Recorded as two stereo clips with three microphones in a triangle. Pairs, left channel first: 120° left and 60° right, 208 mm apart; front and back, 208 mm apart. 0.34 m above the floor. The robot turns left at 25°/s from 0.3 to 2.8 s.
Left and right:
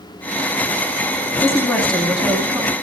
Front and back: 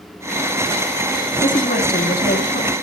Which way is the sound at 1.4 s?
45° left.